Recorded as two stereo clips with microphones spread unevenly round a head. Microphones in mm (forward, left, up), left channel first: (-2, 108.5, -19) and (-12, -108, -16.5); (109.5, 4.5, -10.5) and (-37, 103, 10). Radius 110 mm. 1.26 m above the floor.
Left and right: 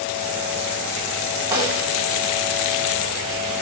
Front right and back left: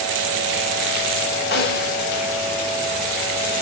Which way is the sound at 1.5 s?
10° right.